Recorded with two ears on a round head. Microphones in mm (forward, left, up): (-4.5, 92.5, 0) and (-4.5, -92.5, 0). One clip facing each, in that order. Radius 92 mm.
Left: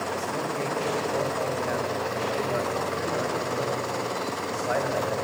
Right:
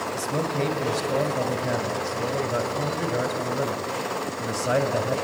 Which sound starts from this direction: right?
A man speaking, at 0.1 s.